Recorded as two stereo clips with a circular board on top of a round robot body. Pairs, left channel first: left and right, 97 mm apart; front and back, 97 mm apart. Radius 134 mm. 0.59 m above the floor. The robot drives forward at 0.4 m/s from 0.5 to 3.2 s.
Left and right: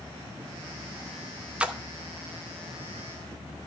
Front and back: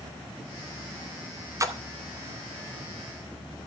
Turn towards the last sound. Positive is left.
turn(degrees=-170)